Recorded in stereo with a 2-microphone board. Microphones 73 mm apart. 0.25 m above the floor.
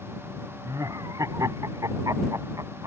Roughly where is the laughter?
Right.